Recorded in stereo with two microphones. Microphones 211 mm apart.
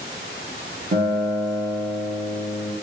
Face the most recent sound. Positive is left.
turn(degrees=-50)  # may be behind; listen again after turning